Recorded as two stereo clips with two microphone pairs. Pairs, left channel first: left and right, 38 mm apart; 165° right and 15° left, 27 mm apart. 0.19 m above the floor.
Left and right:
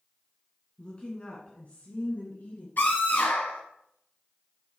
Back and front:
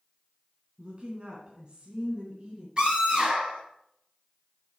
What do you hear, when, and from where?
0.8 s a woman speaking: 40° left, 2 m; by 2.7 s 70° left, 3 m
2.8 s a scream: 65° left, 4.5 m